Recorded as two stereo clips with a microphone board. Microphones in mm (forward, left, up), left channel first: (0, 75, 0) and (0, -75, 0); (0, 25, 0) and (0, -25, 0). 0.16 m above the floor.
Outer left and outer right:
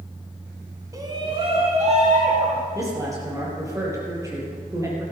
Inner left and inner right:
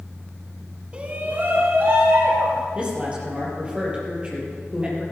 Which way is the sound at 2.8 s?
20° right (ahead or behind).